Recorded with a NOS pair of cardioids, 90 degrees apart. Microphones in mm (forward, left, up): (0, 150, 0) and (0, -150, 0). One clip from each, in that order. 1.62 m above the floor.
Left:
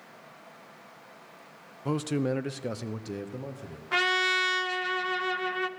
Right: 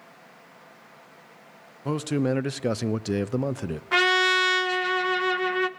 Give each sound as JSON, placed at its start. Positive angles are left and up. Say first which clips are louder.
{"t": 1.9, "sound": "a man speaking", "louder": "right 3 dB", "azimuth_deg": -5, "distance_m": 0.9}
{"t": 3.9, "sound": "a trumpet", "louder": "right 5 dB", "azimuth_deg": -20, "distance_m": 0.7}